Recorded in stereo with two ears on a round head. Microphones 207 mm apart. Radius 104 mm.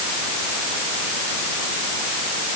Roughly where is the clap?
No clap in this recording.